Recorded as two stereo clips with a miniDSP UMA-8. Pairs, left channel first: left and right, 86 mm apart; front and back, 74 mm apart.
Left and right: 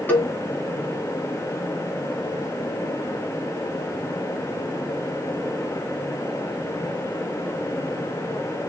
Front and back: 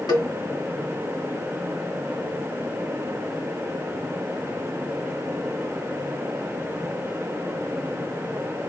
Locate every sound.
0.1 s a cowbell: 25° left, 1.9 m